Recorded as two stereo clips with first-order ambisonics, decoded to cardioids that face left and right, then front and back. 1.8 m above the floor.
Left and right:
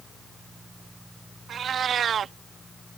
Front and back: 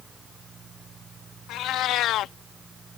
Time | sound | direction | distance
1.5 | a cat meowing | 30° right | ?